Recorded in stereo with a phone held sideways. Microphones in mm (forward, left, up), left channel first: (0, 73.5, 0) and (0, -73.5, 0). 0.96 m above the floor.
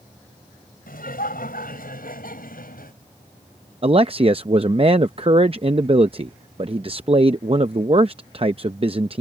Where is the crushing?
I don't hear crushing.